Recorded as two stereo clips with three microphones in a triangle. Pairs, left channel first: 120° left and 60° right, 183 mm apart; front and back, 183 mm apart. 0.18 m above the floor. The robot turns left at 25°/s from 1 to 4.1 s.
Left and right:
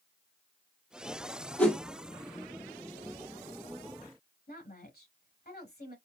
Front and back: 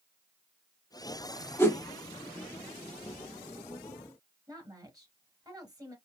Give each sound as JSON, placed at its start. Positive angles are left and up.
{"t": 1.6, "sound": "a whoosh", "azimuth_deg": 50, "distance_m": 1.0}
{"t": 4.5, "sound": "a woman speaking", "azimuth_deg": 115, "distance_m": 3.0}